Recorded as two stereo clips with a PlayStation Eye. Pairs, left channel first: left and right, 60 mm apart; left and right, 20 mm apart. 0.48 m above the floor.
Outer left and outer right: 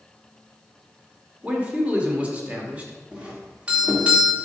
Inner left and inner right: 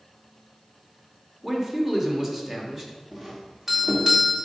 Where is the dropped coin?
I don't hear a dropped coin.